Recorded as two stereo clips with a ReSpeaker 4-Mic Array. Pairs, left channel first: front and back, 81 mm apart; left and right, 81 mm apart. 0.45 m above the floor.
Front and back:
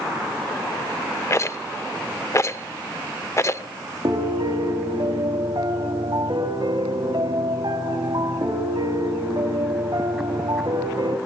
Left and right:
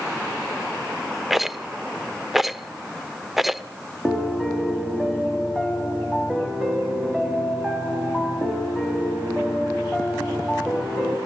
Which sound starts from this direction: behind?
A piano, at 4.0 s.